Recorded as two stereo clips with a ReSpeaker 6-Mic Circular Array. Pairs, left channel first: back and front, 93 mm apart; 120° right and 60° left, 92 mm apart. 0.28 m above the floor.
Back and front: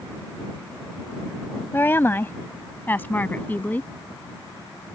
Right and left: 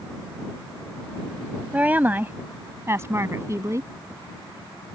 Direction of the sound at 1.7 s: 130° left.